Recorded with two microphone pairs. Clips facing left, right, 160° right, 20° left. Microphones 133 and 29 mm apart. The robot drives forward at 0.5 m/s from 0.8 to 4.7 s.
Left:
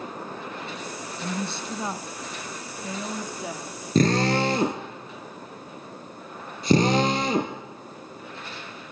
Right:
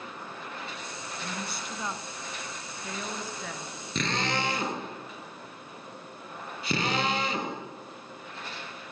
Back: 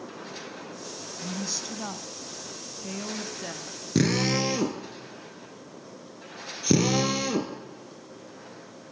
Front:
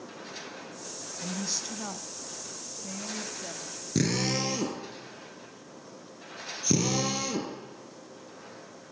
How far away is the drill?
About 3 m.